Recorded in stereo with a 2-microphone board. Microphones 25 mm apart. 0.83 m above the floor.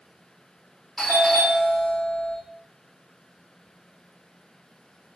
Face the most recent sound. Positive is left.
turn(degrees=5)  # may be behind; listen again after turning